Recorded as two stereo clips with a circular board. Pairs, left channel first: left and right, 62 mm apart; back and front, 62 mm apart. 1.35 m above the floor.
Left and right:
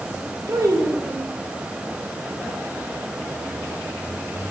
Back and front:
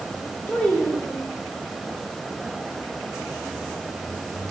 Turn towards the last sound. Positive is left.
turn(degrees=-115)